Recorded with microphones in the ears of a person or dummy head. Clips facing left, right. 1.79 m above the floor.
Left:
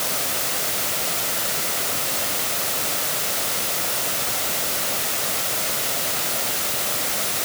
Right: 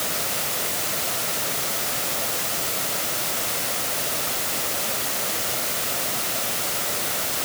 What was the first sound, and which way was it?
Only background noise.